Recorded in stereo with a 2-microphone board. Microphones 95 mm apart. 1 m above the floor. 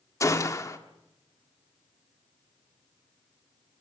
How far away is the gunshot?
About 1.3 m.